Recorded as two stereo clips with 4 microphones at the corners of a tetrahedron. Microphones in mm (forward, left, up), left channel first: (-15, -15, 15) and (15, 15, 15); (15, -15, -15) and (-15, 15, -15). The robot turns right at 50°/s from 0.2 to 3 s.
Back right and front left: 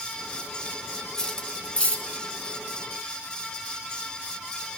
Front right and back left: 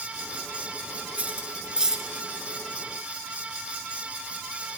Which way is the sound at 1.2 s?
155° left.